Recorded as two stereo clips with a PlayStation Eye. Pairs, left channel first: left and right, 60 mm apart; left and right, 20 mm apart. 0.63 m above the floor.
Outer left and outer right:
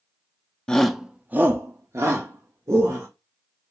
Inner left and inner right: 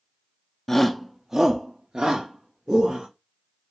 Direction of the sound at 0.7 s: 15° left (ahead or behind).